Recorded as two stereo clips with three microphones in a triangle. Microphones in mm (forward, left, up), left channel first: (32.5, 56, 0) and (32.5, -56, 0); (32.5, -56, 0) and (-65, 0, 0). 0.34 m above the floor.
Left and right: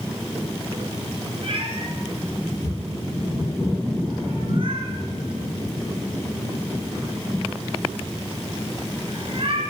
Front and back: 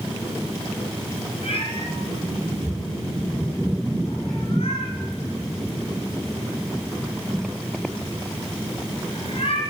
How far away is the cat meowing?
About 2.5 m.